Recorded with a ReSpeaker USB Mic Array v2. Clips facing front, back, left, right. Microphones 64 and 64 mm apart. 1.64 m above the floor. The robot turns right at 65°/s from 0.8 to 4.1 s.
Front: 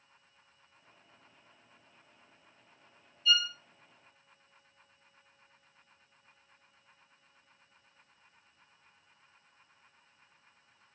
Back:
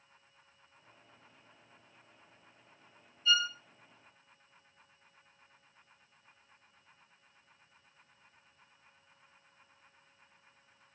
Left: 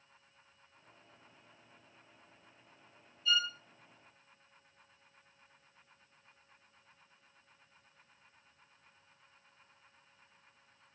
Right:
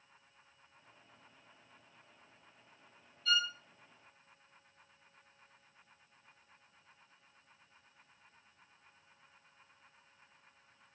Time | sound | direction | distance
3.2 | a violin | 125° right | 1.0 m